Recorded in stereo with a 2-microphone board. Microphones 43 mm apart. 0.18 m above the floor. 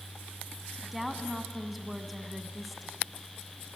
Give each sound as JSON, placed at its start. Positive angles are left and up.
{"t": 0.8, "sound": "a woman speaking", "side_deg": 0, "distance_m": 1.5}